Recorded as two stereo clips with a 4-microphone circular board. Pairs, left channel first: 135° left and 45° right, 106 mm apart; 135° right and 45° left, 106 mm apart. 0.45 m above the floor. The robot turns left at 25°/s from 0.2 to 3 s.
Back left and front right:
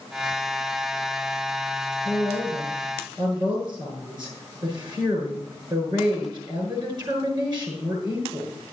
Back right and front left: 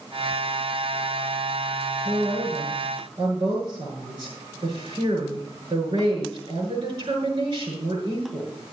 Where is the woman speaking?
25° left, 6.5 m; by 8.5 s 5° left, 6.5 m.